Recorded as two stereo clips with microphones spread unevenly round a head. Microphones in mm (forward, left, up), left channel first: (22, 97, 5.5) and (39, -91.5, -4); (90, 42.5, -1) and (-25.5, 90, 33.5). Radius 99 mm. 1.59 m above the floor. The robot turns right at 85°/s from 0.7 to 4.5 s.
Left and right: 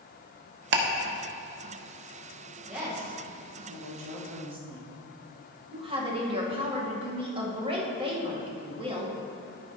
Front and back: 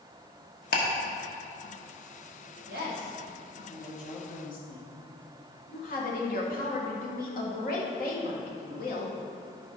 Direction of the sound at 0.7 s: 65° right.